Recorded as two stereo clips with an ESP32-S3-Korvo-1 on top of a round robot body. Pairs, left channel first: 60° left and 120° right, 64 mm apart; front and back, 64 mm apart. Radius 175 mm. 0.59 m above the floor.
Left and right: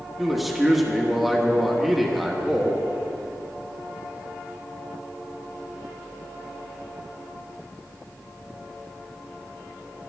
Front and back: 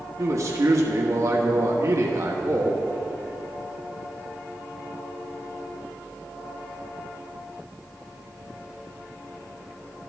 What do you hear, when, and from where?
0.2 s a man speaking: 150° left, 1.5 m